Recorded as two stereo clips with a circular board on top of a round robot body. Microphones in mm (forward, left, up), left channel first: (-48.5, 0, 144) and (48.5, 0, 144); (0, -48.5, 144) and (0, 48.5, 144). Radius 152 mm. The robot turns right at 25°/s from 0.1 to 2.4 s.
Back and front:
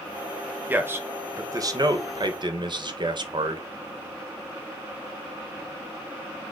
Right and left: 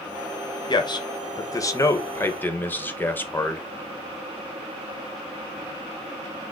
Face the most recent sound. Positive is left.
turn(degrees=-25)